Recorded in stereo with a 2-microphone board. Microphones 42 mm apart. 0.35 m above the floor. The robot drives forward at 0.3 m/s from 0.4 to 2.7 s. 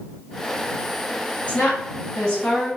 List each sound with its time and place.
1.5 s a woman speaking: 30° left (ahead or behind), 1.9 m